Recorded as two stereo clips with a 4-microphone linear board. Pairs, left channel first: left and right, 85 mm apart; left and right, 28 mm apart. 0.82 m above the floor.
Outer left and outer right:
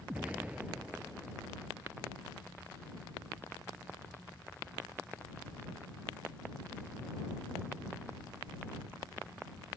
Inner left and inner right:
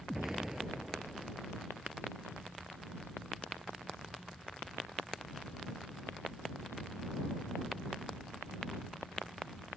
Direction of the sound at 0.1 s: 15° right (ahead or behind).